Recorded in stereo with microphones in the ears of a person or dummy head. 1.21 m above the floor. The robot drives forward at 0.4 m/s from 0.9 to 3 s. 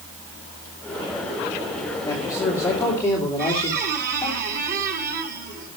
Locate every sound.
2.0 s a man speaking: 25° left (ahead or behind), 2.5 m; by 4.4 s 20° left (ahead or behind), 3 m
3.4 s a squeak: 50° right (ahead or behind), 2.5 m